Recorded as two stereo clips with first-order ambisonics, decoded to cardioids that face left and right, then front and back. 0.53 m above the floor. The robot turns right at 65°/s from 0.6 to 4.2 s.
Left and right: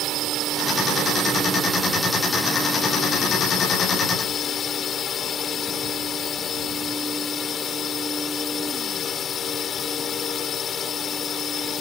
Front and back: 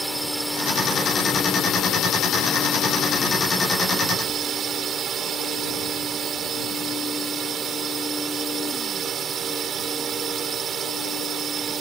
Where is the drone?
100° right; by 11.8 s 135° left.